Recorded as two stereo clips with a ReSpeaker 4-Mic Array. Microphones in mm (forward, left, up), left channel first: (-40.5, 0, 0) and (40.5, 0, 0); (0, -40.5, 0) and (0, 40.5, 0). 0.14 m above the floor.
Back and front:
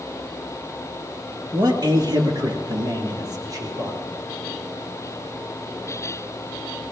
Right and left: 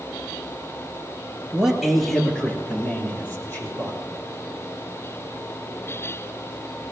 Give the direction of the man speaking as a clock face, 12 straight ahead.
12 o'clock.